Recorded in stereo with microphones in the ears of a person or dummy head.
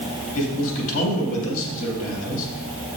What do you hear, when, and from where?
0.3 s a man speaking: 70° left (ahead or behind), 2.5 m